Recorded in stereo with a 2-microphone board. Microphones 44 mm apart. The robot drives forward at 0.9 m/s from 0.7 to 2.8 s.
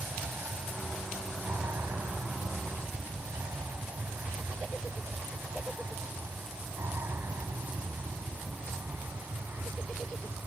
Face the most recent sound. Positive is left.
turn(degrees=-65)  # may be behind; listen again after turning